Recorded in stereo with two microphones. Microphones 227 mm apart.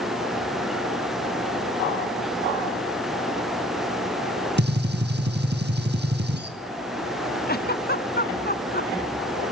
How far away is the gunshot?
About 3 m.